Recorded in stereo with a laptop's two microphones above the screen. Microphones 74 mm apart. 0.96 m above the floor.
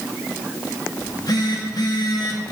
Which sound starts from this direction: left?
A phone buzzing, at 1.0 s.